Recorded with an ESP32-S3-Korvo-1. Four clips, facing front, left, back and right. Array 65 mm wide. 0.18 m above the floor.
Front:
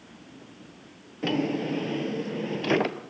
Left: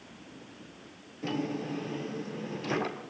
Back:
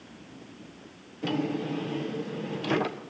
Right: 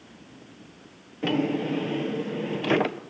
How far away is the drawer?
About 1.3 m.